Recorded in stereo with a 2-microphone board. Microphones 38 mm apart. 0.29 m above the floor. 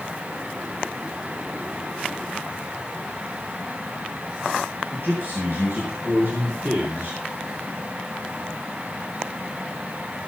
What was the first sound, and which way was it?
A man speaking, 70° right (ahead or behind).